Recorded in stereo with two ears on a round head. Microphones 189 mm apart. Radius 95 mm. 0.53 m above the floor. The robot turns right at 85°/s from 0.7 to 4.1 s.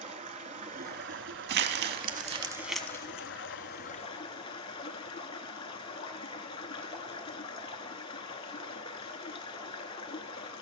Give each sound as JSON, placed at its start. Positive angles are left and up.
{"t": 0.0, "sound": "running water", "azimuth_deg": -140, "distance_m": 0.8}
{"t": 1.5, "sound": "crumpling", "side_deg": -50, "distance_m": 0.5}